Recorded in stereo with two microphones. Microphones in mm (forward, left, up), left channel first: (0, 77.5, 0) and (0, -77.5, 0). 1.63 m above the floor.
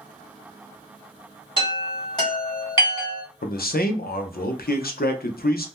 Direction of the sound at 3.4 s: 75° left (ahead or behind).